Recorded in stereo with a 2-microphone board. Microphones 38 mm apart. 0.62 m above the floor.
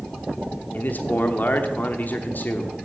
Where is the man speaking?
50° left (ahead or behind), 1.0 m.